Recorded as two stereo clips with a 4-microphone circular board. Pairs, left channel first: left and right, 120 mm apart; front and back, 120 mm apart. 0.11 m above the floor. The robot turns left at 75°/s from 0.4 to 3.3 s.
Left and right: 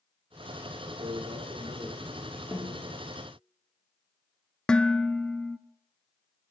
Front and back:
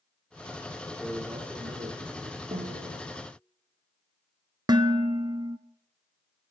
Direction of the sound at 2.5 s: 165° right.